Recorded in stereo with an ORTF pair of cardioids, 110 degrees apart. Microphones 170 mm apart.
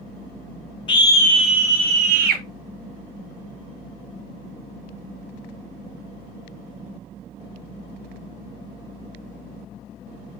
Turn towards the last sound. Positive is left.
turn(degrees=-70)